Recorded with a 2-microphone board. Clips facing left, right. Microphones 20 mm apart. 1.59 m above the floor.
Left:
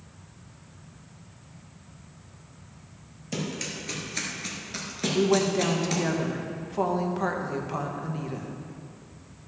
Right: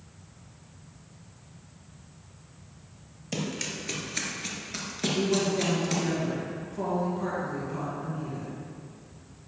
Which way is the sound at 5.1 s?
55° left (ahead or behind).